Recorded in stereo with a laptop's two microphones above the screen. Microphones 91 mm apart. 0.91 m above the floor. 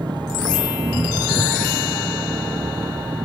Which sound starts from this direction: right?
An engine running, at 0.0 s.